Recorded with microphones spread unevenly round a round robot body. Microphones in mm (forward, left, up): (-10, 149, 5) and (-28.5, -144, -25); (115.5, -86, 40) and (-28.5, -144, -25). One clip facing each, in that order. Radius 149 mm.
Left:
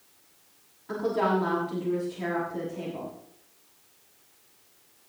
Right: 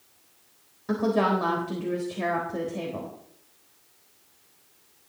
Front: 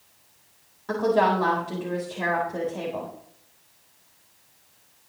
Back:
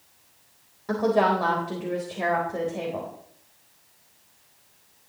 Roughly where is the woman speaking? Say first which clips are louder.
Right 3 dB, even; right.